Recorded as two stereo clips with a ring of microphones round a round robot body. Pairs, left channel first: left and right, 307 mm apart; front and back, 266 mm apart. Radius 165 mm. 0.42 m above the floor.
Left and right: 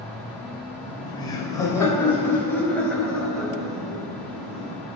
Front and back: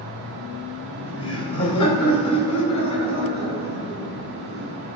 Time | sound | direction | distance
0.8 | laughter | 15° left | 2 m